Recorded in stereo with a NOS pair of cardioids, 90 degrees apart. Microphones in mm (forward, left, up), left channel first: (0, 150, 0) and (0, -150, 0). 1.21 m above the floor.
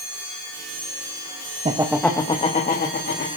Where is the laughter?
20° right, 0.8 m; by 3.3 s 40° left, 2 m.